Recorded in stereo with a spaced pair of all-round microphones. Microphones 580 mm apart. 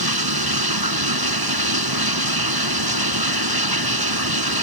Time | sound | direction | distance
0.0 | running water | 40° right (ahead or behind) | ?